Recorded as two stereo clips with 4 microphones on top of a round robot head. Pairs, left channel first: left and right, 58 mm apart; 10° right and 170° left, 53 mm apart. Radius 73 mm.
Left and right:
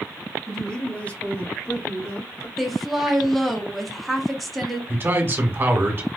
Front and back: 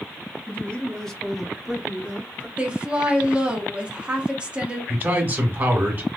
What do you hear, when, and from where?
0.5 s a man speaking: 15° left, 1.3 m; by 2.5 s 105° left, 2.0 m
2.6 s a woman speaking: 175° left, 1.2 m
4.9 s a man speaking: 140° right, 1.9 m